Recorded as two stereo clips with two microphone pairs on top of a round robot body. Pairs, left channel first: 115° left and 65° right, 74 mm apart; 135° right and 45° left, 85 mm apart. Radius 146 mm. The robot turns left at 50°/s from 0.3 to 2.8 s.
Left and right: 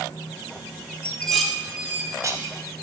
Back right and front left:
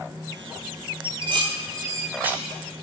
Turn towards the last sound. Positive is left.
turn(degrees=-50)